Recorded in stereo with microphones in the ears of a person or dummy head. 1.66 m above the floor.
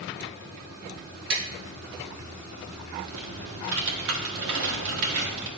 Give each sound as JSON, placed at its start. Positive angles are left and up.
{"t": 1.3, "sound": "tapping", "side_deg": -75, "distance_m": 2.0}
{"t": 3.0, "sound": "typing on a keyboard", "side_deg": -65, "distance_m": 1.1}